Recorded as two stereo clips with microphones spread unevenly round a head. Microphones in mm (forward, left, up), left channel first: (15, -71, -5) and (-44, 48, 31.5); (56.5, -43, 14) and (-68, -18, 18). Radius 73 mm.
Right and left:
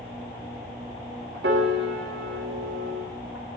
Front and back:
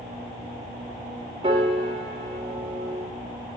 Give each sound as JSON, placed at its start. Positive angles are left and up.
{"t": 1.4, "sound": "a piano", "azimuth_deg": 110, "distance_m": 2.0}